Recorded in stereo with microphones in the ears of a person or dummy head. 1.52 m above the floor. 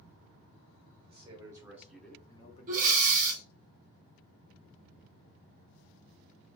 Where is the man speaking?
25° right (ahead or behind), 0.9 m; by 3.5 s 75° left (ahead or behind), 0.8 m.